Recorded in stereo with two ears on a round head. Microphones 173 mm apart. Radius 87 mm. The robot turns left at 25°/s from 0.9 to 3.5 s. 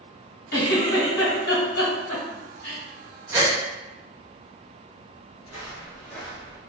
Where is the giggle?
60° left (ahead or behind), 1.7 m.